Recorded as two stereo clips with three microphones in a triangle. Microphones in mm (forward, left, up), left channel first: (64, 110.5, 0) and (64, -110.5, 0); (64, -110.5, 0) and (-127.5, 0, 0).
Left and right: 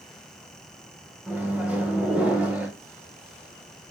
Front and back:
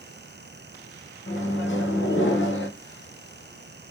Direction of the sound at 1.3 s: 5° right.